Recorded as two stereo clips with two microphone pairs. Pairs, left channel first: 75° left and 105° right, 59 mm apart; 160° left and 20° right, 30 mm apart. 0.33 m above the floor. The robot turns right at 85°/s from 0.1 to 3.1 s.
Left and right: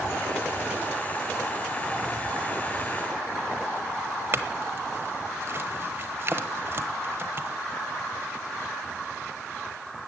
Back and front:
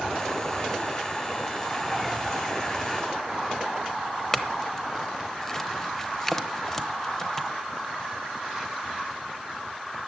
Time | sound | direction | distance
4.3 | a clink | 130° right | 1.0 m